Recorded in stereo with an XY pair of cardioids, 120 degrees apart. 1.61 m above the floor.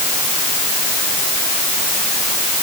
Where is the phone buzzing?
I don't hear a phone buzzing.